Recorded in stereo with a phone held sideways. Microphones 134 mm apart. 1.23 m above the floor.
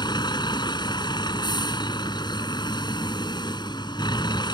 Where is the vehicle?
35° left (ahead or behind).